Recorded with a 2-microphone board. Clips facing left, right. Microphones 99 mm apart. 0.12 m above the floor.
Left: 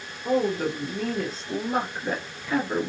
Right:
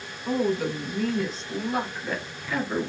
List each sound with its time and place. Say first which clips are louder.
0.2 s a woman speaking: left 1 dB; 50° left (ahead or behind), 1.8 m; by 2.9 s 25° left (ahead or behind), 1.7 m